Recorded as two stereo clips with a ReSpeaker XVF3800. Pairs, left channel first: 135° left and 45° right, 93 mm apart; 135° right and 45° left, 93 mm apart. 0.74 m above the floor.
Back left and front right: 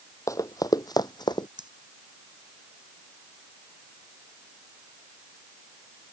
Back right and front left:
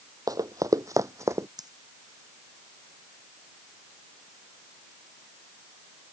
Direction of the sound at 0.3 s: 85° left.